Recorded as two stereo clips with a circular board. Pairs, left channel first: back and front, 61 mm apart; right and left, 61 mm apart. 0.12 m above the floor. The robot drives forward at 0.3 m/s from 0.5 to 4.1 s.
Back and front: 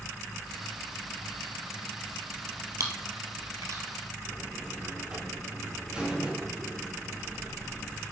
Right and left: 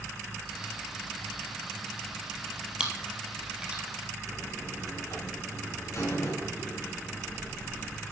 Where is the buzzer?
75° right, 4 m.